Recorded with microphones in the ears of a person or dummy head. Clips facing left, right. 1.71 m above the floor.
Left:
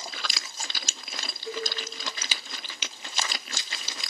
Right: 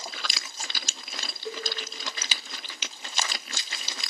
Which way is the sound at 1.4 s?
40° right (ahead or behind).